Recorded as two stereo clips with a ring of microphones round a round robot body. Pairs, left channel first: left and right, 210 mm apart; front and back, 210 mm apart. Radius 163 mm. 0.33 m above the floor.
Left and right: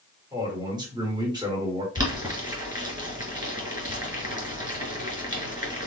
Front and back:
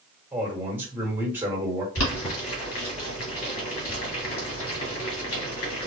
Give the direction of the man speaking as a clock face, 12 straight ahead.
4 o'clock.